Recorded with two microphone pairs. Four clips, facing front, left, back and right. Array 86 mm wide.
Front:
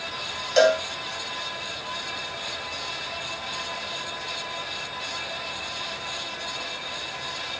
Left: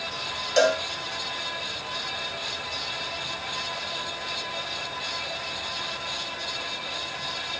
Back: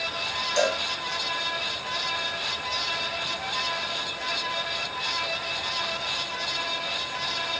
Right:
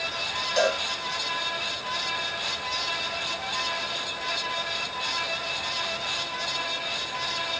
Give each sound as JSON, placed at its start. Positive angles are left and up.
{"t": 0.6, "sound": "a cowbell", "azimuth_deg": 25, "distance_m": 1.6}